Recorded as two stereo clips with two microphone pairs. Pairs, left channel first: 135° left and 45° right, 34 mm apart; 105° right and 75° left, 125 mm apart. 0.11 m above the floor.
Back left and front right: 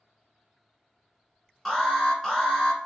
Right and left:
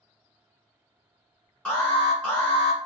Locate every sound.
1.6 s an alarm: 170° right, 1.7 m